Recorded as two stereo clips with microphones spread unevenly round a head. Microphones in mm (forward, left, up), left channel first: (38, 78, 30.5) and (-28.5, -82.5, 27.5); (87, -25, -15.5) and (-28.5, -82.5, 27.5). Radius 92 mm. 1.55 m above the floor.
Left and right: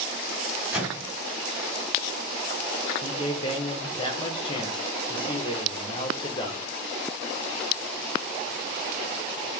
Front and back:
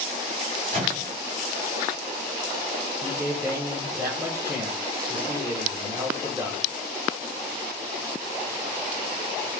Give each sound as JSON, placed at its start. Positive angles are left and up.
{"t": 0.7, "sound": "a microwave", "azimuth_deg": 165, "distance_m": 3.0}
{"t": 3.0, "sound": "a man speaking", "azimuth_deg": 130, "distance_m": 1.1}